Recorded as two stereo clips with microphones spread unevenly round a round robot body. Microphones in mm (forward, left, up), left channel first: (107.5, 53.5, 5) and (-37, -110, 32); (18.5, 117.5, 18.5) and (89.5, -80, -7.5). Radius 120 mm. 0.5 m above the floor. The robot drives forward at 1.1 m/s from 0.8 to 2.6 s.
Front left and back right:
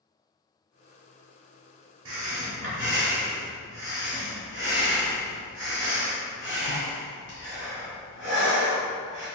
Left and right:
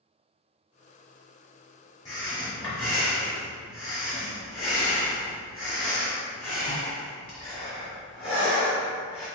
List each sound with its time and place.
2.0 s breathing: 175° right, 0.8 m